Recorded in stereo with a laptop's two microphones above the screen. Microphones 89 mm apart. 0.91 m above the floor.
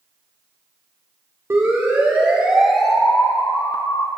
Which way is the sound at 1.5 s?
35° right (ahead or behind).